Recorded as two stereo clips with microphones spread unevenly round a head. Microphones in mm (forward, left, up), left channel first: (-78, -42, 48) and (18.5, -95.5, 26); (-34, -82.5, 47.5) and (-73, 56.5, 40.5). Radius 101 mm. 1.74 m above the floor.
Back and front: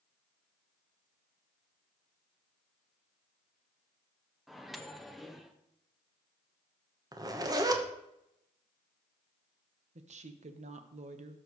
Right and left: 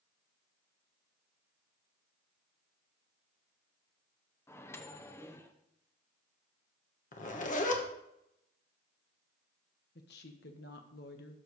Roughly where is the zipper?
Right.